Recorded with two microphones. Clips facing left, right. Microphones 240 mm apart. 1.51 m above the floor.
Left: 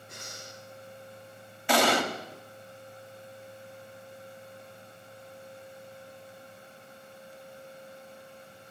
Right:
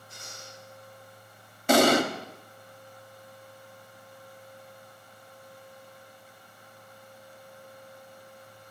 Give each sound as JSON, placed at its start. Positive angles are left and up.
{"t": 0.1, "sound": "breathing", "side_deg": 75, "distance_m": 6.0}
{"t": 1.7, "sound": "an explosion", "side_deg": -45, "distance_m": 1.5}